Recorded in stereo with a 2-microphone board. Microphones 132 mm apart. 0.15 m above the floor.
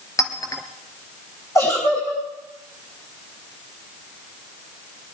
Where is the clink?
30° left (ahead or behind), 1.8 m.